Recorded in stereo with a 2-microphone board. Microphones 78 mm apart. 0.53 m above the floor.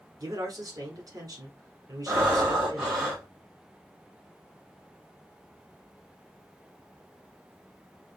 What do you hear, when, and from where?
0.2 s a man speaking: 55° right (ahead or behind), 1.2 m
2.1 s breathing: 10° right (ahead or behind), 1.4 m